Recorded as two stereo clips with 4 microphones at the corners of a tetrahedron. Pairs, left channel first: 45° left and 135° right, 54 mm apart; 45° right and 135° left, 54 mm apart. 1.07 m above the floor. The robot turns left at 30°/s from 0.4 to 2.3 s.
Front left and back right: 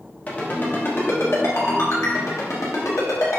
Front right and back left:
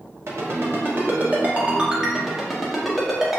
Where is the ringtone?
105° left, 0.9 m; by 3.4 s 50° left, 0.9 m.